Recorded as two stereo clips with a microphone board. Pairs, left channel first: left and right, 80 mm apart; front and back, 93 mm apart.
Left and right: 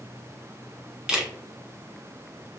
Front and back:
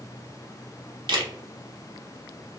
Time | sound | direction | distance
1.1 | a camera shutter | 170° right | 0.8 m